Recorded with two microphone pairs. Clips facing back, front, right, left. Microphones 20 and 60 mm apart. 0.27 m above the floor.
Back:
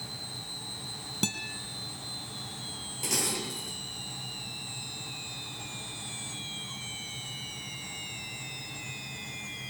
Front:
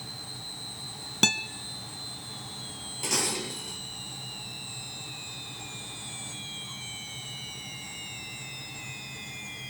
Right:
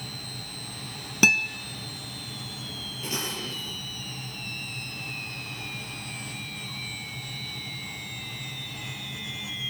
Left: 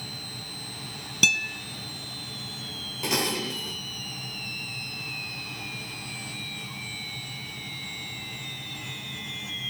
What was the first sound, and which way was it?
A guitar, 45° right.